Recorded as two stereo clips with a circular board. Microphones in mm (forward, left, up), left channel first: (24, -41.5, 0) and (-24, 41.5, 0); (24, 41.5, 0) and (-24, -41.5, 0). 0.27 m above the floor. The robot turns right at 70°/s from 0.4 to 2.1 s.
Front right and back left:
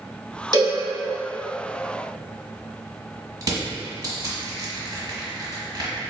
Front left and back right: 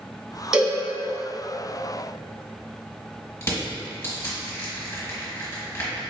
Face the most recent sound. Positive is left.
turn(degrees=110)